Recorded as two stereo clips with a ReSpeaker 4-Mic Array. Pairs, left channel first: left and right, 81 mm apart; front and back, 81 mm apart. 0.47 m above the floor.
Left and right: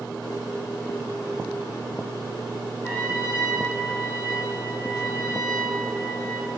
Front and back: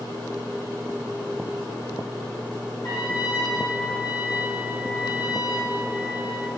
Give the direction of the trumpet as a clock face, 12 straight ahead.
11 o'clock.